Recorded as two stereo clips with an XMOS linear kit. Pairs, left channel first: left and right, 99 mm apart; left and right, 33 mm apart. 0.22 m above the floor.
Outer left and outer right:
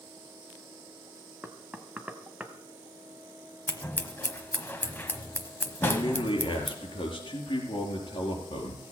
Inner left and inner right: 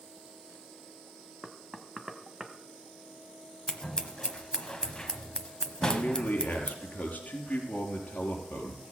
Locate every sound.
1.4 s knocking: 10° right (ahead or behind), 1.1 m
3.7 s scissors: 20° left (ahead or behind), 1.1 m
5.8 s a man speaking: 55° left (ahead or behind), 4 m